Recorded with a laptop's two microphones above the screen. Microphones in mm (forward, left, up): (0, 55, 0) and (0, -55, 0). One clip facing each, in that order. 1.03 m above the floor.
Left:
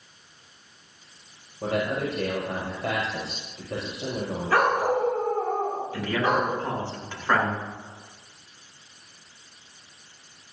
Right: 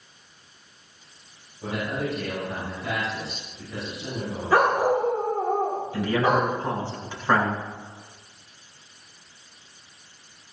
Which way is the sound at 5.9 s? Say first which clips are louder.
Right 3 dB; 10° right (ahead or behind).